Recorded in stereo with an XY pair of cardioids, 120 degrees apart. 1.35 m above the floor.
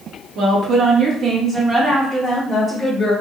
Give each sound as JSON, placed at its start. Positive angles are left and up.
{"t": 0.3, "sound": "a woman speaking", "azimuth_deg": -65, "distance_m": 0.9}